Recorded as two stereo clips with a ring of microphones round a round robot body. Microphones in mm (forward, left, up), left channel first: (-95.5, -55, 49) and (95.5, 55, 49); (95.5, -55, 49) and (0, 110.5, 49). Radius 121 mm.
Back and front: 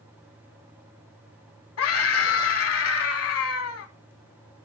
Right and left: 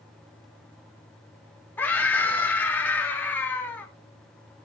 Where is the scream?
140° right, 3.5 m.